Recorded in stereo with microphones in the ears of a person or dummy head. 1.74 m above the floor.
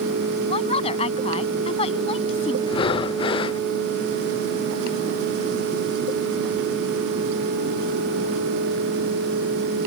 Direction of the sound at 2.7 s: 25° left (ahead or behind).